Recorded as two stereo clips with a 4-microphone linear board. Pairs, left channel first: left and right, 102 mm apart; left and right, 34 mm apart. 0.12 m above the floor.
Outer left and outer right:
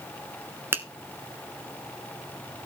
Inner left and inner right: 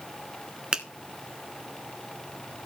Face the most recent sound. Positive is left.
turn(degrees=-20)  # may be behind; listen again after turning